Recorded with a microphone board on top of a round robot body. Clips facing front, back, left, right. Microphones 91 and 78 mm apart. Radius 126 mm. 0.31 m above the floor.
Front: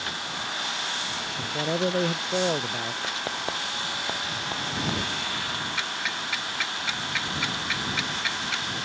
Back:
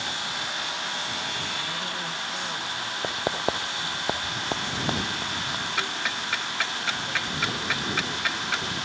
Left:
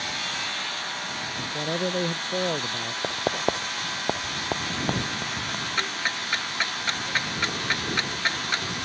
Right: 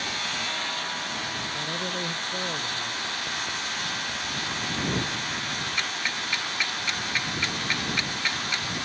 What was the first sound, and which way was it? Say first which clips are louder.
A man speaking: front 6 dB, left 4 dB; 30° left.